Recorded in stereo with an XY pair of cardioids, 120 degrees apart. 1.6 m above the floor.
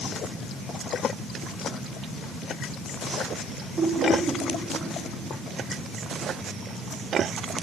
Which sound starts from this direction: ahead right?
Laughter, at 3.8 s.